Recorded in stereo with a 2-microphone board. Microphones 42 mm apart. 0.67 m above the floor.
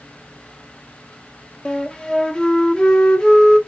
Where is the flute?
20° left (ahead or behind), 0.7 m.